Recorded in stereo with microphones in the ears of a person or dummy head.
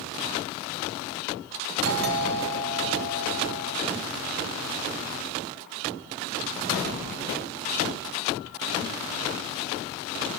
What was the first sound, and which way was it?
A doorbell, 45° right (ahead or behind).